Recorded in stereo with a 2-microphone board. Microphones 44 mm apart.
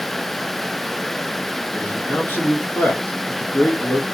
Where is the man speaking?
45° left (ahead or behind), 1.0 m.